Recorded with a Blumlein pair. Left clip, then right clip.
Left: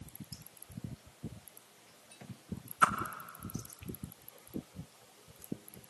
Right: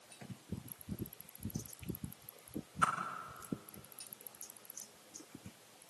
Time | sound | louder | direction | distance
2.8 | a whoosh | left 5 dB | 15° left | 2.5 m